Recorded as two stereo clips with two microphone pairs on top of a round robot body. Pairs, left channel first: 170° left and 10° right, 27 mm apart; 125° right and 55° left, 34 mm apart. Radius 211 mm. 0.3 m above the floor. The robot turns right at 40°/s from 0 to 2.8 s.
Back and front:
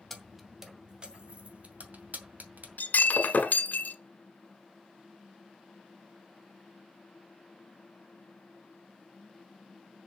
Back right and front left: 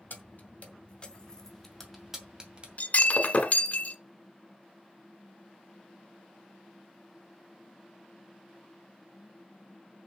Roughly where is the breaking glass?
Behind.